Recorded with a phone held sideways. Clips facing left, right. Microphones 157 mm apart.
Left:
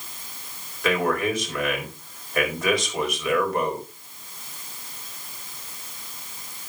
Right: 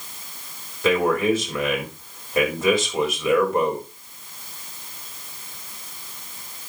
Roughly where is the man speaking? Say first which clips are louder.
Right 4 dB; right.